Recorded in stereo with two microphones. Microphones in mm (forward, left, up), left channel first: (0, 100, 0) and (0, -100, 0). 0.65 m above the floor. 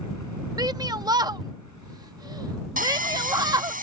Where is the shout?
20° right (ahead or behind).